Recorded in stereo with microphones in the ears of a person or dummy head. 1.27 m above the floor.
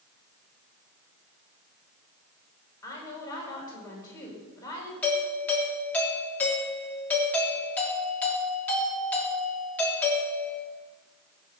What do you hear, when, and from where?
2.8 s a woman speaking: 15° left (ahead or behind), 5 m
5.0 s a doorbell: 5° left (ahead or behind), 3 m